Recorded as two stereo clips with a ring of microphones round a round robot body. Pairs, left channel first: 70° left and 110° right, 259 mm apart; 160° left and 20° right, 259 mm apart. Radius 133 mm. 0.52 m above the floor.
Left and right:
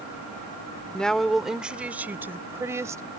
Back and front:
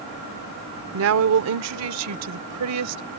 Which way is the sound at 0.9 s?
20° right.